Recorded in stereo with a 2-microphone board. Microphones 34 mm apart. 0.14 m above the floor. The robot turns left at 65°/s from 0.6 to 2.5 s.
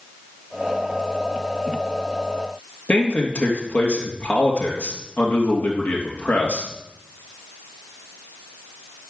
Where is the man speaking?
55° left (ahead or behind), 3.5 m.